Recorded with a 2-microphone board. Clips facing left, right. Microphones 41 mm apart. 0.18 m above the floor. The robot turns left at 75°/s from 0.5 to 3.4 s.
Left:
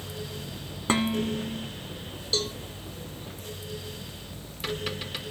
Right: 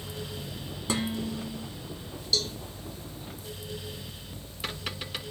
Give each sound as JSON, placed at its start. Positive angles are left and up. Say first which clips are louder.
{"t": 0.9, "sound": "dishes clattering", "louder": "left 5 dB", "azimuth_deg": 95, "distance_m": 1.0}
{"t": 2.3, "sound": "a cowbell", "louder": "even", "side_deg": 35, "distance_m": 1.4}